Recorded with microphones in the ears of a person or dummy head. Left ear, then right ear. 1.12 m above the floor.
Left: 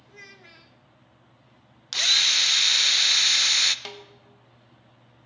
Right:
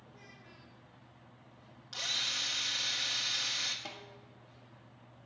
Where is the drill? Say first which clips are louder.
Left 14 dB; 55° left (ahead or behind), 0.6 m.